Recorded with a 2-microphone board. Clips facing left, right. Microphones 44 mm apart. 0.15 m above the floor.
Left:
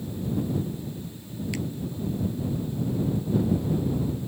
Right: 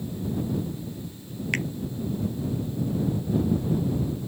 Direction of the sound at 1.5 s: 50° right (ahead or behind).